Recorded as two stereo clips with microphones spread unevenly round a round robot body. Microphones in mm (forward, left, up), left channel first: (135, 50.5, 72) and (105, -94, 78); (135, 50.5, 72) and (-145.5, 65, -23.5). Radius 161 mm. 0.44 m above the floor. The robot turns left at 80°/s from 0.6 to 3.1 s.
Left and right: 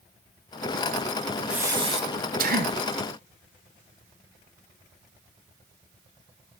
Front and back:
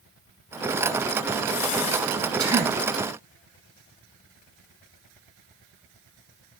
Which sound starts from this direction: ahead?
Breathing, at 1.5 s.